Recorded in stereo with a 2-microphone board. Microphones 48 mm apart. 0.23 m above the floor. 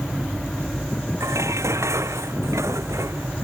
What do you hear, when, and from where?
1.2 s dishes clattering: 85° right